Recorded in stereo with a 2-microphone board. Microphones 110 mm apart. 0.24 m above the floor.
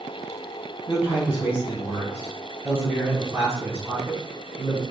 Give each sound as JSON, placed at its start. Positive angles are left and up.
{"t": 0.9, "sound": "a man speaking", "side_deg": -20, "distance_m": 1.7}